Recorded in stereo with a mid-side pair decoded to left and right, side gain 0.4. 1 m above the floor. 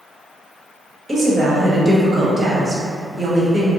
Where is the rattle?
I don't hear a rattle.